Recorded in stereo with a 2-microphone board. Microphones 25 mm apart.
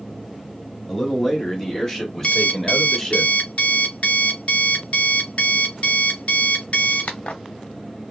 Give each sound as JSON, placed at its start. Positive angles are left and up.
{"t": 0.9, "sound": "a man speaking", "side_deg": 5, "distance_m": 1.4}
{"t": 2.2, "sound": "an alarm clock", "side_deg": 55, "distance_m": 0.7}